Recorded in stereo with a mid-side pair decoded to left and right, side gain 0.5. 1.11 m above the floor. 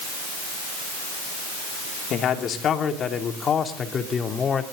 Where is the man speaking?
60° left, 2.5 m; by 4.6 s 30° left, 3 m.